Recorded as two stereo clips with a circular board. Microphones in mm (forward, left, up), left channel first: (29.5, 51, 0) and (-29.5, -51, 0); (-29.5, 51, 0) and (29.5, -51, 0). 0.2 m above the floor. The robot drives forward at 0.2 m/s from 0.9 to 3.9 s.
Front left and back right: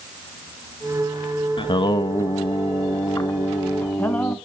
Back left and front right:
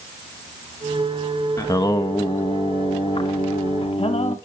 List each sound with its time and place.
1.6 s singing: 75° left, 0.6 m; by 4.4 s 130° left, 0.7 m